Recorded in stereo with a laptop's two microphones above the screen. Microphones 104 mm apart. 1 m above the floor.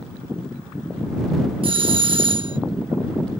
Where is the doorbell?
65° right (ahead or behind).